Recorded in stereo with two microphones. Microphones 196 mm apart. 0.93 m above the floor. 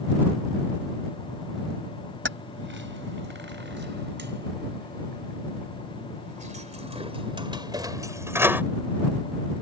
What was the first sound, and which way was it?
Keys jangling, 80° right.